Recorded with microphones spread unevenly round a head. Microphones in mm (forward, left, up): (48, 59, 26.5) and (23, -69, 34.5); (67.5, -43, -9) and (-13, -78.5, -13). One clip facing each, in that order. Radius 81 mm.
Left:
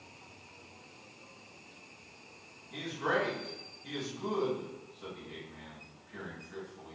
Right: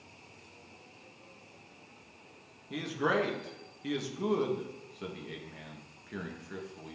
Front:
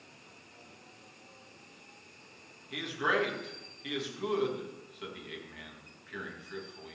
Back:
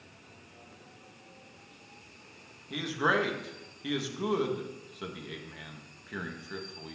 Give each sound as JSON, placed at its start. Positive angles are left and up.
{"t": 2.7, "sound": "a man speaking", "azimuth_deg": -100, "distance_m": 2.0}